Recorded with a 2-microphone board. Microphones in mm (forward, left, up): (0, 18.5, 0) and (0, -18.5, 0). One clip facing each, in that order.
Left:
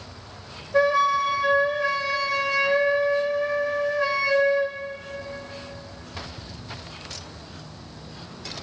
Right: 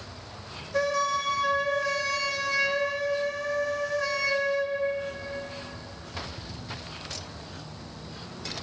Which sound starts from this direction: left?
A flute, at 0.7 s.